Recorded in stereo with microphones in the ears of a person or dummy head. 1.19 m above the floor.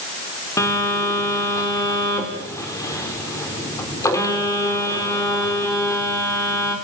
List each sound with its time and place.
0.6 s a phone buzzing: 15° left (ahead or behind), 4 m